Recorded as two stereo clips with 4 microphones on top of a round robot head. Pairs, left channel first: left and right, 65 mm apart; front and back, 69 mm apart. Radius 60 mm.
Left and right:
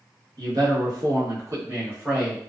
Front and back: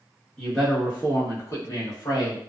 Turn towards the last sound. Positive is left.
turn(degrees=-15)